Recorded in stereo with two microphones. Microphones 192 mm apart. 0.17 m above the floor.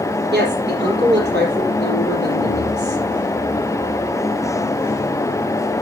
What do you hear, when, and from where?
0.3 s a woman speaking: 65° right (ahead or behind), 5 m